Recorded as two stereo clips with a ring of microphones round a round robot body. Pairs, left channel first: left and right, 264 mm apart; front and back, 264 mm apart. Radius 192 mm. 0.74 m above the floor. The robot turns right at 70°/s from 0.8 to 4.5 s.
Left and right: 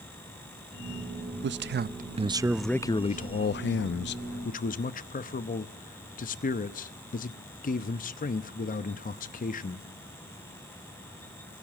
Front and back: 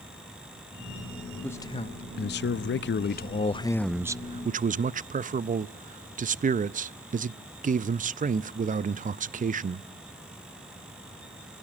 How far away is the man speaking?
About 0.5 m.